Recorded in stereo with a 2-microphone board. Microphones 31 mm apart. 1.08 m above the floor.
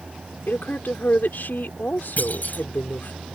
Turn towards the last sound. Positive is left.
turn(degrees=60)  # may be behind; listen again after turning